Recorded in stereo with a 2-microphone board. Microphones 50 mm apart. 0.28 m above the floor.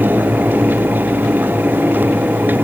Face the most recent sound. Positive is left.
No sound to turn to.